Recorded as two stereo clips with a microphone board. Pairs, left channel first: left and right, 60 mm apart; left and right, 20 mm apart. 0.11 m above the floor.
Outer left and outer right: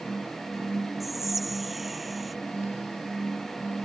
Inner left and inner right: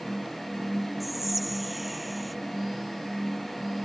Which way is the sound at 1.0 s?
5° right (ahead or behind).